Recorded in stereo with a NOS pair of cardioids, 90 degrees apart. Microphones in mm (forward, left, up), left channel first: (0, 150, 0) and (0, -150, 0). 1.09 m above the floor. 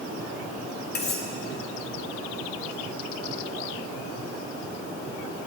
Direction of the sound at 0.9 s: 35° left.